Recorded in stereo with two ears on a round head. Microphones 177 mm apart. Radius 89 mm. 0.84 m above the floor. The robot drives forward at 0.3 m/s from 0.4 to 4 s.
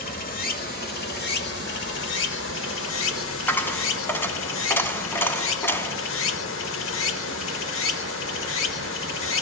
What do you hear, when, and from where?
0.0 s running water: 45° left (ahead or behind), 1.4 m; by 9.4 s 75° left (ahead or behind), 1.1 m
3.5 s a dropped coin: 10° left (ahead or behind), 0.8 m